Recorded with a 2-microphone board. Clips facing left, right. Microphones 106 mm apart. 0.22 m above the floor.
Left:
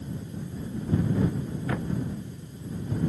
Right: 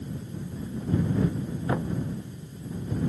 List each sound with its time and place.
1.7 s knocking: 20° right (ahead or behind)